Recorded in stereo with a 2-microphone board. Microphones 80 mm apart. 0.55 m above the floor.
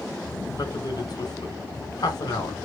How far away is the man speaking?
About 1.4 m.